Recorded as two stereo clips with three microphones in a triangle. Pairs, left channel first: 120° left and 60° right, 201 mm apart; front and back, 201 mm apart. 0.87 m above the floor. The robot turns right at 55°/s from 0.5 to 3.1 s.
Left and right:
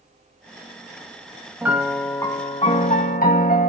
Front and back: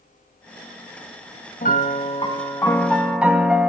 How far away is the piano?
About 1.3 m.